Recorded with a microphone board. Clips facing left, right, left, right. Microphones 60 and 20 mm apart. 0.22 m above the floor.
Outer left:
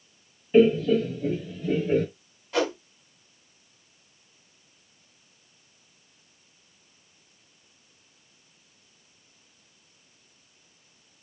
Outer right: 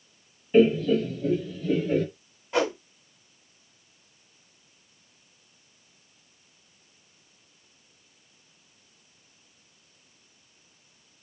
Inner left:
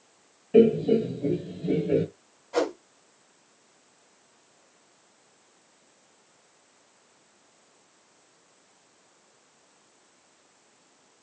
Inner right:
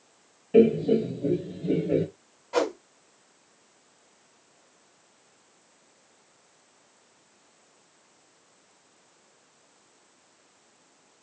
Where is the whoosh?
20° right (ahead or behind), 1.4 m.